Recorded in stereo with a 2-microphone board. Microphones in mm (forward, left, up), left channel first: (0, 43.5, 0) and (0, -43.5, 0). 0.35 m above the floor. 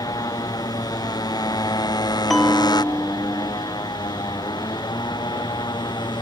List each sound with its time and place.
0.0 s a motorcycle: 50° left (ahead or behind); by 6.2 s 55° left (ahead or behind)
2.3 s a bell: centre (ahead or behind)